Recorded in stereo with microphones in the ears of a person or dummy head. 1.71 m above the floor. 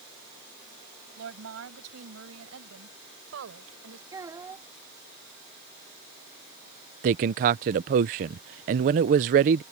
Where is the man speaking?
45° right (ahead or behind).